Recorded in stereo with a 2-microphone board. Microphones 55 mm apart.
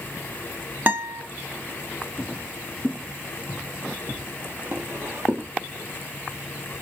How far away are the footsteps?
About 2 m.